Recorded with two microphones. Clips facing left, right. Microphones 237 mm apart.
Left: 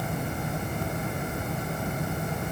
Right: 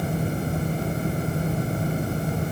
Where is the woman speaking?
I don't hear a woman speaking.